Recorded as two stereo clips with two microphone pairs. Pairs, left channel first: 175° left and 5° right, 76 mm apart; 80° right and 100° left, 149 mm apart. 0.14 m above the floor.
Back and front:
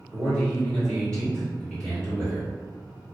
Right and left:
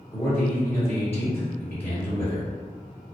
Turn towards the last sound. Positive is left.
turn(degrees=-125)